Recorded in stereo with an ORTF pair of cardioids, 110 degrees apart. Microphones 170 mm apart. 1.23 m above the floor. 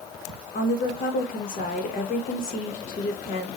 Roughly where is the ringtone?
I don't hear a ringtone.